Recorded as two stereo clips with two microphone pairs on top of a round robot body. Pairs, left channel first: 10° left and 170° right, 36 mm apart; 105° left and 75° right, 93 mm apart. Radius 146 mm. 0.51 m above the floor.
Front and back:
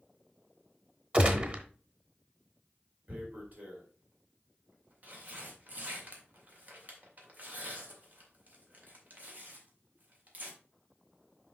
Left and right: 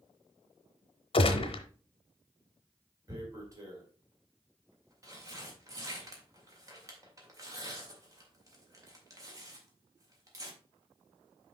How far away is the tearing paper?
About 2 m.